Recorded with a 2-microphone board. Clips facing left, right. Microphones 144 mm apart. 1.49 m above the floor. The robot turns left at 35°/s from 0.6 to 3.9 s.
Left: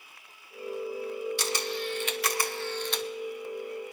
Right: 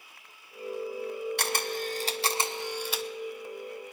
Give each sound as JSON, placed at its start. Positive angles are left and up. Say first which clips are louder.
{"t": 1.4, "sound": "a camera shutter", "louder": "even", "side_deg": -60, "distance_m": 0.5}